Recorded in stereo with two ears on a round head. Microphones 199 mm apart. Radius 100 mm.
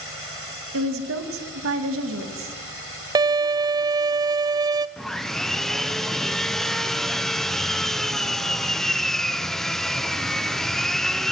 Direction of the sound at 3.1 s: 20° right (ahead or behind).